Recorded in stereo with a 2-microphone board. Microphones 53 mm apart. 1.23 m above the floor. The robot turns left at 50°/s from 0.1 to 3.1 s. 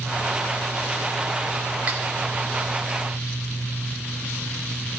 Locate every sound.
1.9 s cutlery clinking: 30° right (ahead or behind), 3 m; by 2.0 s 40° right (ahead or behind), 3 m